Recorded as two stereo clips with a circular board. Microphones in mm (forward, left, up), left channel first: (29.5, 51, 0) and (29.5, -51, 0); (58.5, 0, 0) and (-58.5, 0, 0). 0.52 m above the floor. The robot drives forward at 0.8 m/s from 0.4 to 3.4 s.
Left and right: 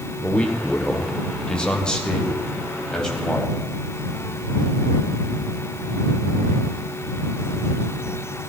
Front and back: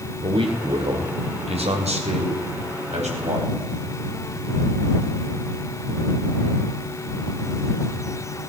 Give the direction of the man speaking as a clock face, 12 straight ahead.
7 o'clock.